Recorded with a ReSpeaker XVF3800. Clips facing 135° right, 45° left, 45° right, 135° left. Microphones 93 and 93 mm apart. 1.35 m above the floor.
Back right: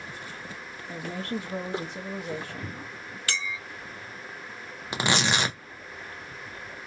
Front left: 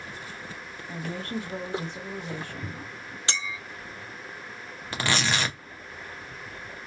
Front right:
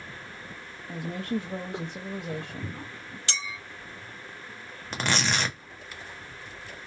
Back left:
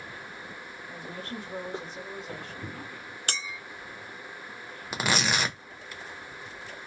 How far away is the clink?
About 0.5 m.